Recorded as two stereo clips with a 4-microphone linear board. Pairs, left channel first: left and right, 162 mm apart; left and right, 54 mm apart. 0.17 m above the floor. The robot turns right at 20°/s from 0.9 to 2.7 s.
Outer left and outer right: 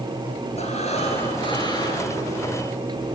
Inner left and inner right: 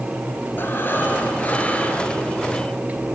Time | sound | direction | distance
0.6 | breathing | 40° left (ahead or behind) | 3 m